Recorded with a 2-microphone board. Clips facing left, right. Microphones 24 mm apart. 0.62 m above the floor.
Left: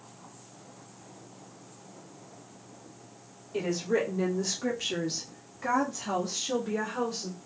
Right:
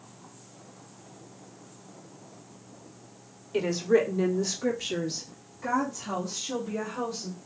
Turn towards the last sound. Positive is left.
turn(degrees=55)  # may be behind; listen again after turning